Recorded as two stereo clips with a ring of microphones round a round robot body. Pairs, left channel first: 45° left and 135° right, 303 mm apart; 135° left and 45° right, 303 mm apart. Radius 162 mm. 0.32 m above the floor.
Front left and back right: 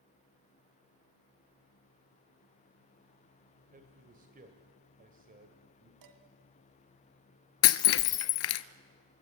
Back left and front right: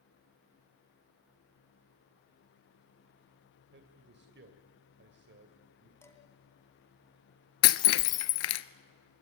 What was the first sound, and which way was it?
A man speaking, 85° right.